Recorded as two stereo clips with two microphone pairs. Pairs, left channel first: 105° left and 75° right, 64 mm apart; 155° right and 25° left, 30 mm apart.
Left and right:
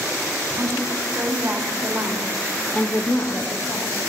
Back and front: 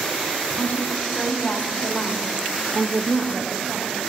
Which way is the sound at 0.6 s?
105° right.